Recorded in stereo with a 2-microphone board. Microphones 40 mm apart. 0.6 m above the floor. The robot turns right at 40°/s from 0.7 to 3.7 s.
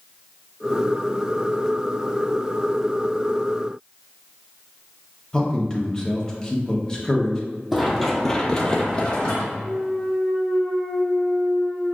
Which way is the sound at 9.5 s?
40° right (ahead or behind).